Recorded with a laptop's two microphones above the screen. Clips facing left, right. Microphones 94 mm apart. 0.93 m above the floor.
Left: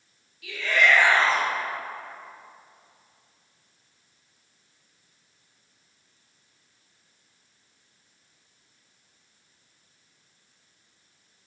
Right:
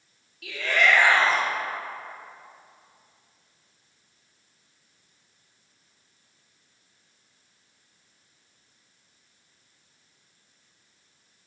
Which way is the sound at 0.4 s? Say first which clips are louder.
Left 1 dB; 60° right (ahead or behind).